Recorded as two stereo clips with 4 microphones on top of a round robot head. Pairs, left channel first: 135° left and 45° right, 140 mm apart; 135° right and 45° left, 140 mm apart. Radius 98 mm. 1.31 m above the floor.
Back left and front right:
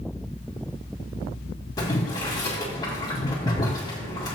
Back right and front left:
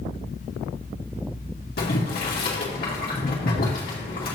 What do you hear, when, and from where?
1.8 s boiling: 160° right, 2.5 m